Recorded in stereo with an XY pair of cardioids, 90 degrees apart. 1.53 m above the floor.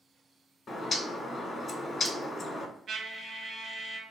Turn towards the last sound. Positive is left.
turn(degrees=-65)